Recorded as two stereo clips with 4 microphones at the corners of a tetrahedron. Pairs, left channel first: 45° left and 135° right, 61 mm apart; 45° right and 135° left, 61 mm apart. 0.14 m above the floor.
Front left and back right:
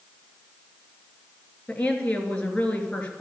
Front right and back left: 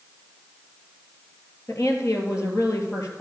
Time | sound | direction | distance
1.7 | a woman speaking | 25° right | 3 m